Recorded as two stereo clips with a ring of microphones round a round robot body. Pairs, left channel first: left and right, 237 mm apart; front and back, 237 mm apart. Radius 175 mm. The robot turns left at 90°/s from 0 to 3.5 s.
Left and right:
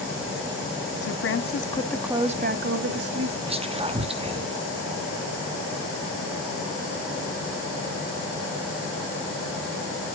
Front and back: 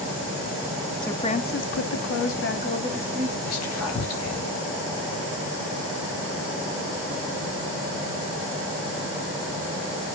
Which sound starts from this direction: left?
A woman speaking, at 1.0 s.